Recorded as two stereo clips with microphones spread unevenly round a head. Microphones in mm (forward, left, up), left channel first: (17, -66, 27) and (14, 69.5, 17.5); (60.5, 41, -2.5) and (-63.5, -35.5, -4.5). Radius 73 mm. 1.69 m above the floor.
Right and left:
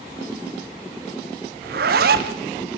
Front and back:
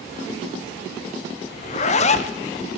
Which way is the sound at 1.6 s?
75° left.